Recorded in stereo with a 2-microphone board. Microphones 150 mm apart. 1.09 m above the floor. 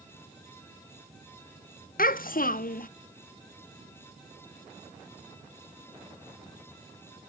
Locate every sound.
2.0 s a child speaking: 70° left (ahead or behind), 0.6 m